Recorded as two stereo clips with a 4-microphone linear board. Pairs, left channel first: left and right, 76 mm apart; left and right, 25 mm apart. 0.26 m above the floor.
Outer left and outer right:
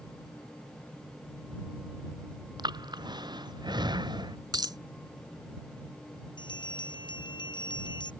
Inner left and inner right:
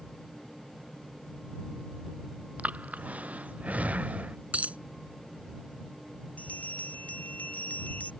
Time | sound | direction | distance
2.6 | breathing | 70° right (ahead or behind) | ?
4.5 | a dropped coin | 65° right (ahead or behind) | ?
6.4 | a bell | 80° left | ?